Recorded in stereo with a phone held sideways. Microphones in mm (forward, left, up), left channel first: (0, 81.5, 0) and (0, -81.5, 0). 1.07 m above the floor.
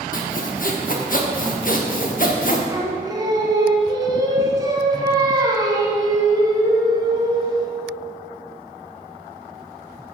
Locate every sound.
0.1 s sawing: 55° left (ahead or behind), 1.0 m
2.7 s singing: 25° right (ahead or behind), 1.3 m